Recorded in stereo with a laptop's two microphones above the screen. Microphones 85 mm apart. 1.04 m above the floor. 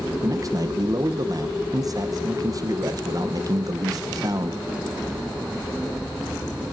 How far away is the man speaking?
About 0.7 m.